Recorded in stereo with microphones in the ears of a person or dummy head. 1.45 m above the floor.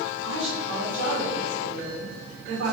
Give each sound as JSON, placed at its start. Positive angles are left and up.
{"t": 0.2, "sound": "a woman speaking", "side_deg": -50, "distance_m": 1.9}